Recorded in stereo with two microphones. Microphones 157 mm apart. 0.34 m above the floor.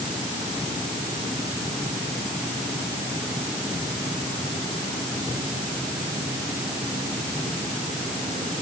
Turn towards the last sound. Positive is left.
No sound to turn to.